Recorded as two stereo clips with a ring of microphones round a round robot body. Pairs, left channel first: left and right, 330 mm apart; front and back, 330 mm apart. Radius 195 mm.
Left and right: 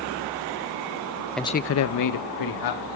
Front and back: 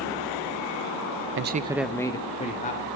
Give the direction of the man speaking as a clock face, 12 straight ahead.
6 o'clock.